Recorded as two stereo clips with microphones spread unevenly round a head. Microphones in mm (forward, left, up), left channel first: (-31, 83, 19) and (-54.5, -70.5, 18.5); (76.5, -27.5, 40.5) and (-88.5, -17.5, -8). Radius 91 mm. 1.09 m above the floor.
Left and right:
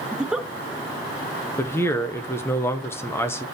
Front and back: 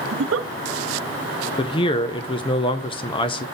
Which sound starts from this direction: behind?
A giggle, at 0.1 s.